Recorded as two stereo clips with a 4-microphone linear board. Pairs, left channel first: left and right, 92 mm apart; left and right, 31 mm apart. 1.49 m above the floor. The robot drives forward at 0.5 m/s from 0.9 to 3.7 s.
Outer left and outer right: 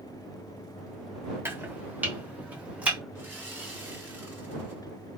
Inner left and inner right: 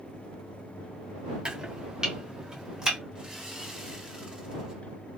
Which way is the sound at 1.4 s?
25° right (ahead or behind).